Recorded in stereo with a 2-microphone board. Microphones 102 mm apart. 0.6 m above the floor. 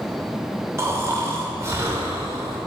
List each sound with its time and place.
0.8 s snoring: 25° right (ahead or behind), 0.5 m